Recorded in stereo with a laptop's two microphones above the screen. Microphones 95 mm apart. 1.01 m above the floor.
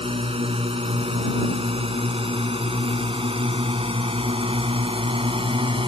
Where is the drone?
85° right; by 5.9 s 70° right (ahead or behind).